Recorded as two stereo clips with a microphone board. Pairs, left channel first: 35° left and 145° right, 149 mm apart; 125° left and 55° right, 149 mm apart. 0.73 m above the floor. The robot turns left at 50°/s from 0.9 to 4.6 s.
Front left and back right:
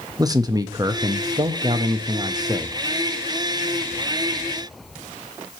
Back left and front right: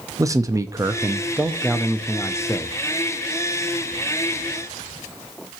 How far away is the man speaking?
About 0.6 m.